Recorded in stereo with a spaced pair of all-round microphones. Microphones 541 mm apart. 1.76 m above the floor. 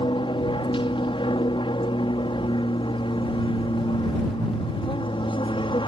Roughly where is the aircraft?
Centre.